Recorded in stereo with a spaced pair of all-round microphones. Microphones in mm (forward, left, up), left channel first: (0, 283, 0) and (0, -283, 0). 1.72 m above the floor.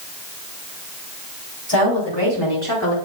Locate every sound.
1.7 s a woman speaking: 45° left (ahead or behind), 6 m; by 3.0 s 30° left (ahead or behind), 4.5 m